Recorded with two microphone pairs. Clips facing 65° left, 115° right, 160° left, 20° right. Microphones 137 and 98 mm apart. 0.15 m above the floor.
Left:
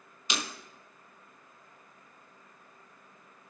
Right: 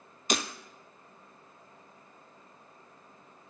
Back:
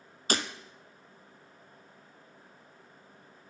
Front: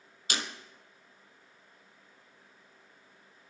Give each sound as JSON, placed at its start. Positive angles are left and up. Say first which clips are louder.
{"t": 0.3, "sound": "breaking glass", "louder": "right 5 dB, back 6 dB", "azimuth_deg": -155, "distance_m": 0.7}